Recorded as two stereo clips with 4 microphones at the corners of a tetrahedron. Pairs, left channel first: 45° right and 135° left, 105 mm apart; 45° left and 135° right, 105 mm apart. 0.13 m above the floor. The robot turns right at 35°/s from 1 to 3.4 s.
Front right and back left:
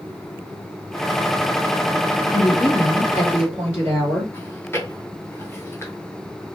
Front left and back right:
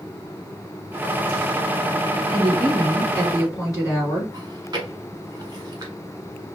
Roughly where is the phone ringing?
I don't hear a phone ringing.